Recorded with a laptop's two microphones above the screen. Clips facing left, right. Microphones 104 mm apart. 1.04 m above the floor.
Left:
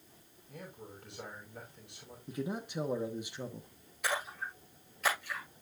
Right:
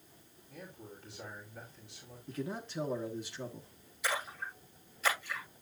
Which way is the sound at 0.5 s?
65° left (ahead or behind).